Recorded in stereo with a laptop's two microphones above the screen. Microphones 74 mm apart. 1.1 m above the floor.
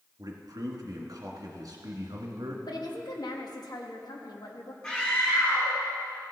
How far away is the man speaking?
About 2 m.